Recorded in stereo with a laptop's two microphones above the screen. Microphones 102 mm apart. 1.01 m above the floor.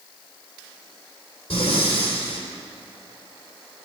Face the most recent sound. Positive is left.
turn(degrees=80)